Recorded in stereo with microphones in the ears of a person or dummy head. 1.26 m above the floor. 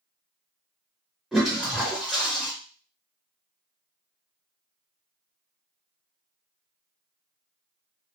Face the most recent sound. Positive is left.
turn(degrees=0)  # may be behind; listen again after turning